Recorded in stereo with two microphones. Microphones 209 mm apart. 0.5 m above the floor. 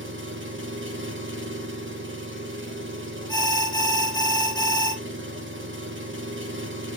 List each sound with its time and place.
0.0 s an engine running: 70° right (ahead or behind), 1.1 m
3.3 s an alarm: 20° left (ahead or behind), 1.2 m